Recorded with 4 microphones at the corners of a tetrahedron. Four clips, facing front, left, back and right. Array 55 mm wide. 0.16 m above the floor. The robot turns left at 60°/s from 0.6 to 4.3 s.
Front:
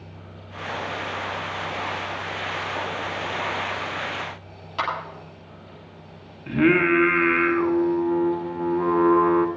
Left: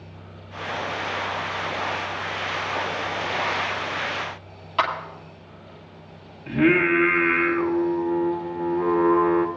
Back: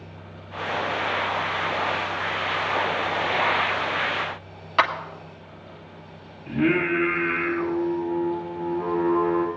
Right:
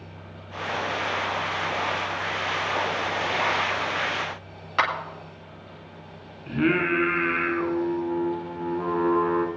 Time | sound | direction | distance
4.8 | a clap | 155° right | 1.9 m
6.5 | singing | 15° left | 1.2 m